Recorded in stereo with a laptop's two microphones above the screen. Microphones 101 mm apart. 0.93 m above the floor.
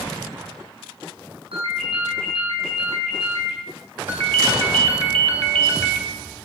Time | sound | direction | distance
1.5 | a ringtone | 70° right (ahead or behind) | 5.5 m
4.1 | a ringtone | 70° right (ahead or behind) | 2 m